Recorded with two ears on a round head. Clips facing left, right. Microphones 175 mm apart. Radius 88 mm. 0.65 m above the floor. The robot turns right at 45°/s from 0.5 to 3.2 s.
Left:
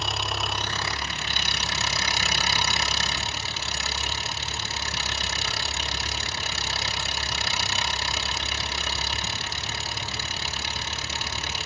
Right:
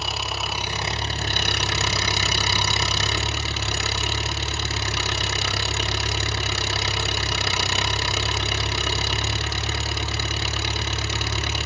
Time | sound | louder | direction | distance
0.0 | an engine running | even | 175° right | 0.7 m